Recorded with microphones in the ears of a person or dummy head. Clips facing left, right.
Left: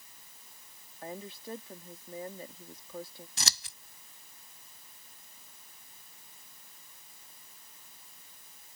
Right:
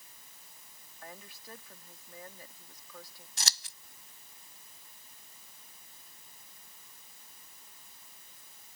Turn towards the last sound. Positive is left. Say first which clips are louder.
# left 1 dB
turn(degrees=65)  # may be behind; listen again after turning